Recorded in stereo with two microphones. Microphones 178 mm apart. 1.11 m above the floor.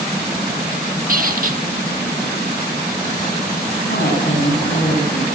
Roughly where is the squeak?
Right.